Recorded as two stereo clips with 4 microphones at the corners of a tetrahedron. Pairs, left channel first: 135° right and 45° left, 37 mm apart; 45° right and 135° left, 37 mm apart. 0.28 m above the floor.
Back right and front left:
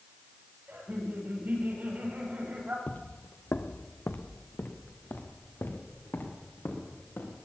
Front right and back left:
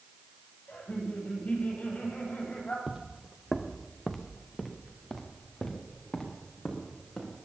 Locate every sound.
0.7 s laughter: 5° left, 8 m
2.9 s footsteps: 170° right, 0.5 m; by 7.3 s 120° right, 5 m